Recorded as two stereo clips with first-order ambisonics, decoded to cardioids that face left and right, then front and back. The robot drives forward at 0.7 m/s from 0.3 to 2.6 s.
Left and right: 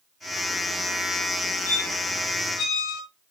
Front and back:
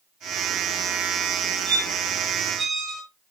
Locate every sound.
1.7 s a squeak: 90° left, 5.5 m; by 3.0 s 95° left, 5.5 m